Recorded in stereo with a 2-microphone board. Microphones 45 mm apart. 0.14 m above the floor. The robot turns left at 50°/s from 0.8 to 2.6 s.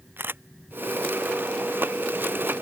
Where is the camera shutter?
55° right (ahead or behind).